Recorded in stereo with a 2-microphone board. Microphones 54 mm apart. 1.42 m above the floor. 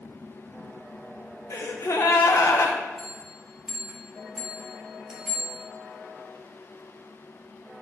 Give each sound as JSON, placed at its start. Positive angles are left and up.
{"t": 1.5, "sound": "a gasp", "side_deg": 70, "distance_m": 0.9}
{"t": 3.0, "sound": "a bell", "side_deg": -10, "distance_m": 1.5}